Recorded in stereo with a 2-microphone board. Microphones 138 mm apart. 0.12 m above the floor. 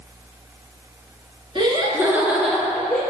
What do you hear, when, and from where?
1.6 s laughter: 35° right (ahead or behind), 1.5 m; by 3.0 s 10° left (ahead or behind), 2.5 m